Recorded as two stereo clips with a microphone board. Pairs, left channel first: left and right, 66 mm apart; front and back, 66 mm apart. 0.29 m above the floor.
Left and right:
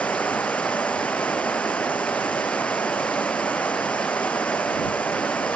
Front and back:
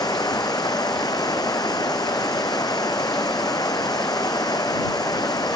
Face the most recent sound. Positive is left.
turn(degrees=25)